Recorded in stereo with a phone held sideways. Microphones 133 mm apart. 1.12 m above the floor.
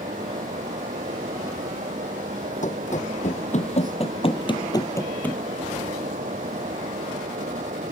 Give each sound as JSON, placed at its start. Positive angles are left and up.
{"t": 0.0, "sound": "a fan", "side_deg": -80}
{"t": 2.6, "sound": "running footsteps", "side_deg": 70}